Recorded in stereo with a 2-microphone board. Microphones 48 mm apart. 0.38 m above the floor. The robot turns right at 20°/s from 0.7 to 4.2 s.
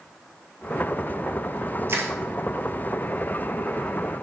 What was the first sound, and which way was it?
Crushing, 55° right (ahead or behind).